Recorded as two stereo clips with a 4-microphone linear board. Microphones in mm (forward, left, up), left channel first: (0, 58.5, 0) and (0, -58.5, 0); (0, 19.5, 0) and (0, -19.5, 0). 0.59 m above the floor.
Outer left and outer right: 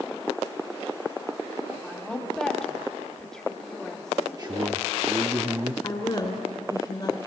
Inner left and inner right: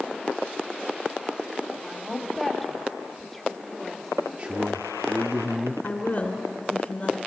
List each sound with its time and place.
1.8 s a woman speaking: 5° left (ahead or behind), 1.6 m
4.4 s a man speaking: 35° right (ahead or behind), 0.8 m
5.8 s a woman speaking: 40° left (ahead or behind), 2.5 m